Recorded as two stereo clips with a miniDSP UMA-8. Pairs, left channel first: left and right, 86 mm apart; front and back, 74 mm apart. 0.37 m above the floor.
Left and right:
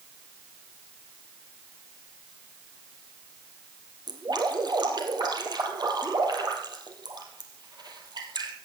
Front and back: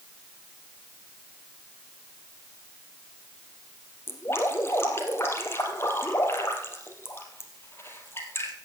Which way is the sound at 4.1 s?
55° right.